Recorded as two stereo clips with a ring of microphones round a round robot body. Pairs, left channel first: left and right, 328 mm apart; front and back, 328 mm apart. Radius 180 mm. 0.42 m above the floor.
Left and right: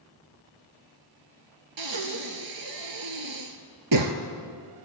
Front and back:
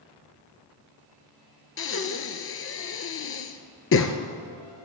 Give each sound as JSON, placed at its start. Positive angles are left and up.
{"t": 1.8, "sound": "breathing", "azimuth_deg": -50, "distance_m": 1.3}